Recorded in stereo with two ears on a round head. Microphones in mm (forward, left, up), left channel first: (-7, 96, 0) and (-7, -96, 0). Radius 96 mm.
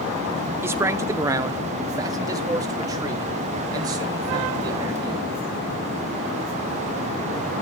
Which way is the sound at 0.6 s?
10° right (ahead or behind).